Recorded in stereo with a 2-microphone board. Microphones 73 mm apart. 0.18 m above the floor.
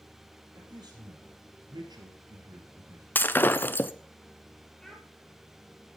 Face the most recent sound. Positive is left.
turn(degrees=5)  # may be behind; listen again after turning